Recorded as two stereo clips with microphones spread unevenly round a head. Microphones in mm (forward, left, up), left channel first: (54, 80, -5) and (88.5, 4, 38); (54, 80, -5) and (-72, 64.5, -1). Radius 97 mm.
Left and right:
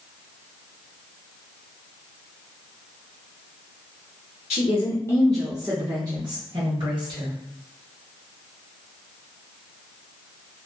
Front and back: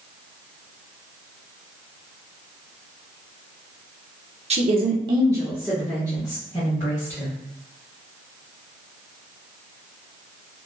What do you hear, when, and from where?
4.5 s a woman speaking: 170° left, 0.6 m; by 7.3 s 55° right, 1.4 m